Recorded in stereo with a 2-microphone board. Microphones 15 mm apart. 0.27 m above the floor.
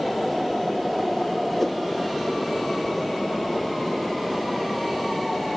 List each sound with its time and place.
1.6 s a whoosh: 15° left (ahead or behind)